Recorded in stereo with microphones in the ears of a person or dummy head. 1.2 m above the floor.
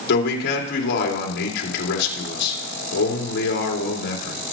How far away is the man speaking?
About 2.5 m.